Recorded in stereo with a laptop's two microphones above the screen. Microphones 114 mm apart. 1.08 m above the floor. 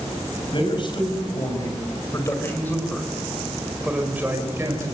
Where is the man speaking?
45° left (ahead or behind), 6 m; by 4.9 s 30° right (ahead or behind), 4.5 m.